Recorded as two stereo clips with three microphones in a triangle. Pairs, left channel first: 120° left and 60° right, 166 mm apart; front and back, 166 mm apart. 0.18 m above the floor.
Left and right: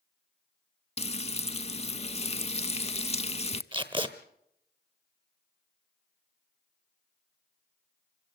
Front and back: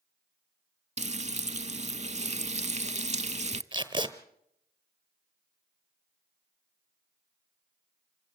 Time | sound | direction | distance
1.0 | frying | 155° left | 0.5 m
3.7 | tape being pulled | 120° right | 1.2 m